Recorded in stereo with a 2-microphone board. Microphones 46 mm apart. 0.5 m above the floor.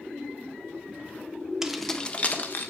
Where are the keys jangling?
10° right (ahead or behind), 0.6 m; by 2.7 s 50° left (ahead or behind), 0.9 m.